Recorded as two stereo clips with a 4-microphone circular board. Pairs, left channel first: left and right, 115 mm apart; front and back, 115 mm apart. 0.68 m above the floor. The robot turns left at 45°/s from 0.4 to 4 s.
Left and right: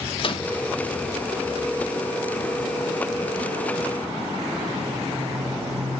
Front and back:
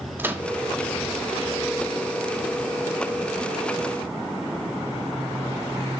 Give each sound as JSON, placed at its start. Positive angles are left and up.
{"t": 0.2, "sound": "a microwave", "azimuth_deg": 110, "distance_m": 1.2}